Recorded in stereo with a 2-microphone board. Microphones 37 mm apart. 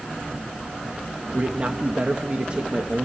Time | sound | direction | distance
1.3 | a man speaking | 30° right (ahead or behind) | 1.1 m